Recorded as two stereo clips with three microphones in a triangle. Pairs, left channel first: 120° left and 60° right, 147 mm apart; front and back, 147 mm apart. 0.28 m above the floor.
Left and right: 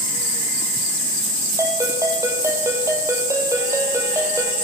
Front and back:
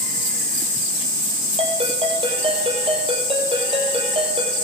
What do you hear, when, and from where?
1.6 s a ringtone: 130° right, 3.5 m